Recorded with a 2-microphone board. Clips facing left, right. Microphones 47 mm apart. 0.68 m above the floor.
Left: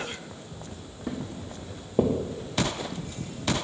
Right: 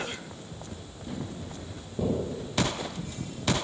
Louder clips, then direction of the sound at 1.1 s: Left 3 dB; 60° left (ahead or behind).